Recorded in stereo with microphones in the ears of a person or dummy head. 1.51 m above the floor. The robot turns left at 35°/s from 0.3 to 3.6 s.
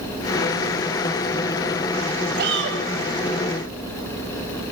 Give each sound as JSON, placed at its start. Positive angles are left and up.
{"t": 2.4, "sound": "a shout", "side_deg": -60, "distance_m": 7.5}